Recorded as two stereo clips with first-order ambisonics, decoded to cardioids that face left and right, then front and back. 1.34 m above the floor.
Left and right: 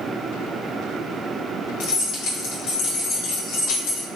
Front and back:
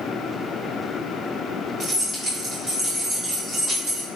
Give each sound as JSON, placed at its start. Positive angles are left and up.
{"t": 1.8, "sound": "keys jangling", "azimuth_deg": 110, "distance_m": 1.1}